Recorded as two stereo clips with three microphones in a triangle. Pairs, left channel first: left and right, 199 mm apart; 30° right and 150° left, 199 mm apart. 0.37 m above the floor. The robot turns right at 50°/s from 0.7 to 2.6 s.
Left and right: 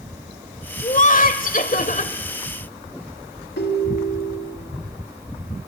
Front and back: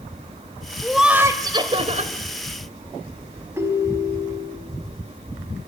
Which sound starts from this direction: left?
A ringtone, at 3.6 s.